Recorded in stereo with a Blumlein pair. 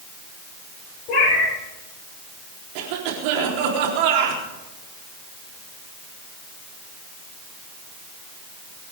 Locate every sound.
1.1 s a cat meowing: 35° left, 6 m
2.8 s a cough: 45° right, 4 m